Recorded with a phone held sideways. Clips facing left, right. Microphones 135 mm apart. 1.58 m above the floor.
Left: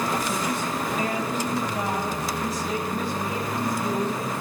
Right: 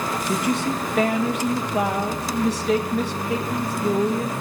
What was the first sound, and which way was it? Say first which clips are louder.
A woman speaking: right 4 dB; 75° right (ahead or behind).